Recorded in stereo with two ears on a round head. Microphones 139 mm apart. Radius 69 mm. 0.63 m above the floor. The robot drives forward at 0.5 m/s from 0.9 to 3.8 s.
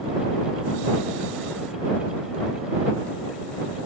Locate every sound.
Only background noise.